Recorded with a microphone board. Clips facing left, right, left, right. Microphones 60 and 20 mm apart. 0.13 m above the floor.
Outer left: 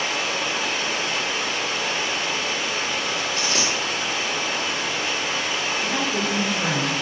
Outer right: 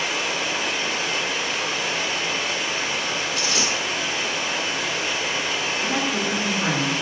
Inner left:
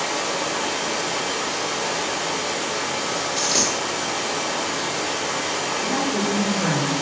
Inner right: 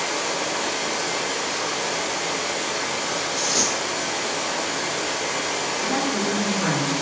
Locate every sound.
0.0 s running water: 5° right (ahead or behind), 1.1 m
3.4 s a dropped coin: 40° left (ahead or behind), 1.1 m
5.8 s a woman speaking: 25° right (ahead or behind), 1.2 m